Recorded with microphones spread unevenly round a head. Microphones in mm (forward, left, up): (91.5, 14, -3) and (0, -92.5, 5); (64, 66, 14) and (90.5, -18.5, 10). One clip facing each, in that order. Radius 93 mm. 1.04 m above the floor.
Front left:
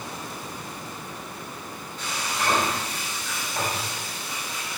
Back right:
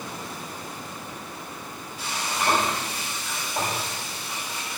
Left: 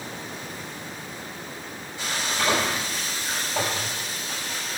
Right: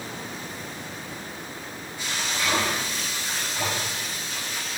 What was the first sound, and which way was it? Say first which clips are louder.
Frying: back right 1 dB, left 2 dB; 145° left.